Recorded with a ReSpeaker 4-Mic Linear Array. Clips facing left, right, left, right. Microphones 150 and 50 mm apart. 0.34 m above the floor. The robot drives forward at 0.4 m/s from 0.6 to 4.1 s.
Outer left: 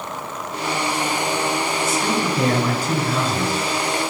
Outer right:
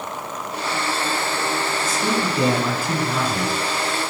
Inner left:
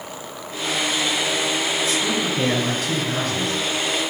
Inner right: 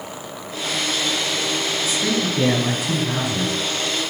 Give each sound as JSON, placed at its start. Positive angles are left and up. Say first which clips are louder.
{"t": 1.9, "sound": "a man speaking", "louder": "outer left 1 dB, even", "side_deg": -5, "distance_m": 4.0}